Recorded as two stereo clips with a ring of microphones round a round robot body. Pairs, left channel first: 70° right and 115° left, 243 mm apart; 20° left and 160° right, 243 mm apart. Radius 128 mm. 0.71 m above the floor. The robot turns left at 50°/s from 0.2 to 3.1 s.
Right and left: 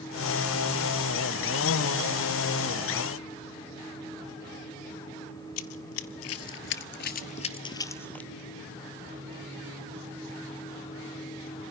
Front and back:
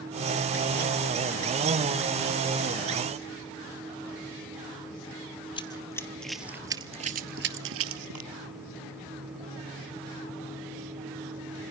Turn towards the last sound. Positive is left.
turn(degrees=-155)